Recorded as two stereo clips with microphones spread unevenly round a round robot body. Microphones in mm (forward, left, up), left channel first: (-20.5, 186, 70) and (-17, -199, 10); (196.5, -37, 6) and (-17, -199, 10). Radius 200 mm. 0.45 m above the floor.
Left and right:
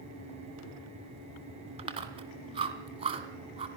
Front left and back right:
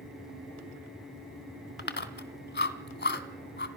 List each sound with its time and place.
1.8 s chewing: 15° right, 2.0 m